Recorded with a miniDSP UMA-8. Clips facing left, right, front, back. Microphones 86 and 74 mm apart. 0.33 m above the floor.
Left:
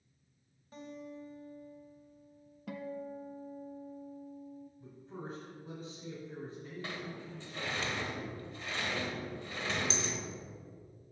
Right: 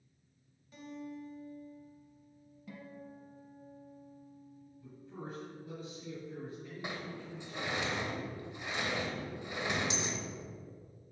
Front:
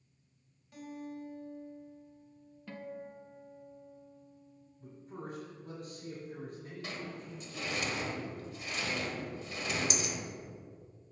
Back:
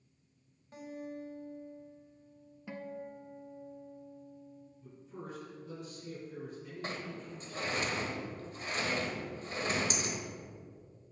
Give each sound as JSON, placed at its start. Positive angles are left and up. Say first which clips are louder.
{"t": 0.7, "sound": "a guitar", "louder": "right 1 dB, back 1 dB", "azimuth_deg": 130, "distance_m": 1.8}
{"t": 2.7, "sound": "a guitar", "louder": "left 8 dB, back 1 dB", "azimuth_deg": 105, "distance_m": 0.7}
{"t": 4.8, "sound": "a man speaking", "louder": "right 1 dB, front 2 dB", "azimuth_deg": 40, "distance_m": 3.0}
{"t": 6.8, "sound": "a sliding door", "louder": "right 2 dB, back 2 dB", "azimuth_deg": -155, "distance_m": 0.9}